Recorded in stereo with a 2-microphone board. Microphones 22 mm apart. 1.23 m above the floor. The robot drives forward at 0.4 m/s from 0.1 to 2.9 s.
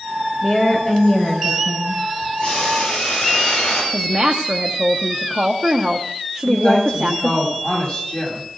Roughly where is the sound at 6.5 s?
Left.